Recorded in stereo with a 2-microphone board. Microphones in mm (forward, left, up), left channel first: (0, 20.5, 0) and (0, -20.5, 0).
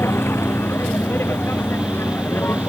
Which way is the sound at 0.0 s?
90° left.